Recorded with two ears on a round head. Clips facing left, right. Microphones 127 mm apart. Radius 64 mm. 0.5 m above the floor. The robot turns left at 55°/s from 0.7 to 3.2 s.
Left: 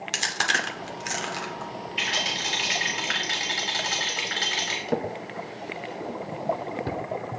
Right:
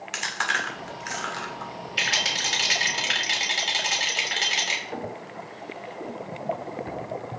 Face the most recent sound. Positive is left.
turn(degrees=60)  # may be behind; listen again after turning